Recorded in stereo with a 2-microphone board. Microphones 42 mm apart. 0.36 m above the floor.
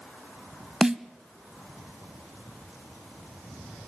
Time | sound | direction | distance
0.8 | a snare drum | 15° right (ahead or behind) | 0.6 m